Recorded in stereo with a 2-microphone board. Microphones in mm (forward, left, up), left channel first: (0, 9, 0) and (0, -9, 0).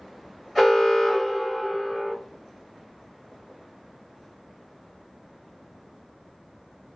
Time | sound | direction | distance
0.6 | an alarm | 10° right (ahead or behind) | 1.9 m